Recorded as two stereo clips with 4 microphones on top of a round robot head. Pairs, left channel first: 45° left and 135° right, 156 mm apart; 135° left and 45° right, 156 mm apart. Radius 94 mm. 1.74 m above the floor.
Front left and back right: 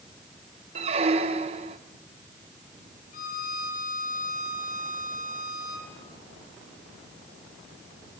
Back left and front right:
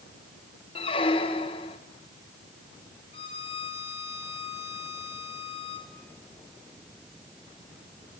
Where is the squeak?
175° right, 1.0 m.